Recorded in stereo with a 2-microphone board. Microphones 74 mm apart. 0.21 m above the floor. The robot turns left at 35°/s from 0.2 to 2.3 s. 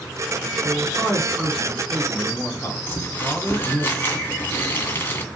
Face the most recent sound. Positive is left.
turn(degrees=30)  # may be behind; listen again after turning